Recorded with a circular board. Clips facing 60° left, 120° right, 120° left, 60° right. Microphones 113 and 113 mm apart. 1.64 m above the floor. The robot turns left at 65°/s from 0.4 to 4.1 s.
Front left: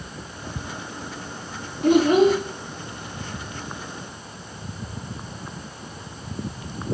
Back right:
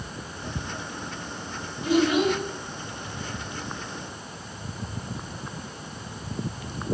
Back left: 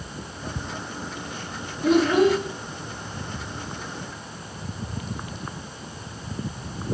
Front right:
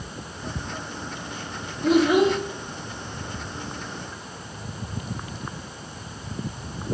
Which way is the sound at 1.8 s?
35° left.